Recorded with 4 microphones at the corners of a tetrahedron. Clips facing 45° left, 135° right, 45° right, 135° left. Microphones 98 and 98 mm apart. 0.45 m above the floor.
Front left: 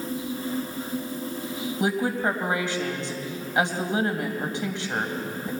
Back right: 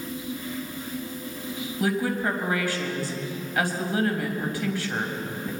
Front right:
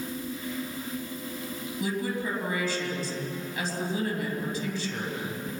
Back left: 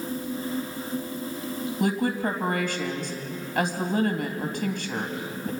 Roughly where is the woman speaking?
Left.